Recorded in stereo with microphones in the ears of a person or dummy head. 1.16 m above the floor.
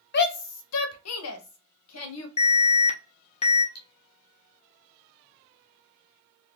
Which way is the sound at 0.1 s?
55° left (ahead or behind).